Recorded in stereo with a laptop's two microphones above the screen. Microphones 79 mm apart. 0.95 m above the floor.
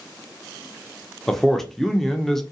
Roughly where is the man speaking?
Centre.